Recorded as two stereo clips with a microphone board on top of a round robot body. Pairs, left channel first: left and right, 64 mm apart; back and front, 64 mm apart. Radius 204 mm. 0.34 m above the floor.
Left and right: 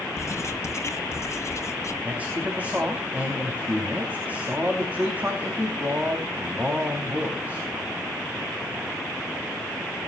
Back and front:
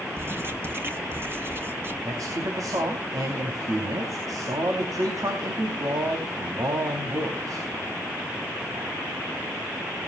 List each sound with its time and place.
0.2 s writing: 50° left, 2.5 m
2.0 s a man speaking: 25° right, 4.5 m